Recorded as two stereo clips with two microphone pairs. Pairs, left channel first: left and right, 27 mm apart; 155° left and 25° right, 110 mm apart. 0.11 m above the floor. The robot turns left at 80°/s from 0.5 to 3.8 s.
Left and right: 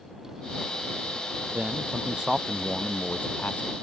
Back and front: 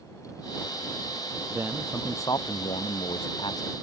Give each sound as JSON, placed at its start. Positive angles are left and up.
{"t": 1.5, "sound": "a man speaking", "azimuth_deg": -90}